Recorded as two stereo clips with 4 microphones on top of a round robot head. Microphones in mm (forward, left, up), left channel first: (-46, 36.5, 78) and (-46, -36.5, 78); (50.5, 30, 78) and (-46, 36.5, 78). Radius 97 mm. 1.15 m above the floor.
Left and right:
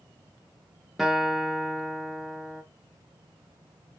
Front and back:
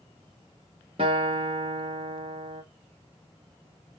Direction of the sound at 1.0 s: Straight behind.